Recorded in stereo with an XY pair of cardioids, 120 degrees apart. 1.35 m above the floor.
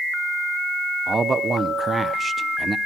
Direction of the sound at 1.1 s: 25° right.